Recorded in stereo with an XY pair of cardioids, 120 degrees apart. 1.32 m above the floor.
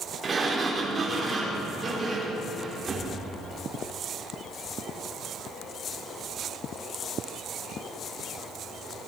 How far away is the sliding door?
About 4.5 m.